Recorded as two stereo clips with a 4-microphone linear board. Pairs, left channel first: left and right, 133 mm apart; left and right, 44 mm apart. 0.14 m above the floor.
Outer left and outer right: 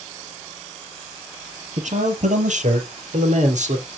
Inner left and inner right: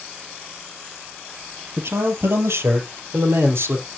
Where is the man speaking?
65° right (ahead or behind), 3 m; by 3.9 s 60° right (ahead or behind), 4 m.